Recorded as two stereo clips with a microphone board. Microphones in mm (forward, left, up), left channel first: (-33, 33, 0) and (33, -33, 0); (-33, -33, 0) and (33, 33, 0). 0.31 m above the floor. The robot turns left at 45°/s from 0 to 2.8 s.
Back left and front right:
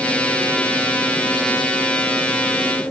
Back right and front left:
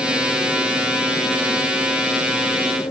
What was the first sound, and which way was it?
Only background noise.